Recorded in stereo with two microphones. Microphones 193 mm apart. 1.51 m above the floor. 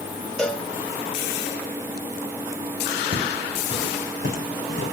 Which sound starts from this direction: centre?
A cowbell, at 0.4 s.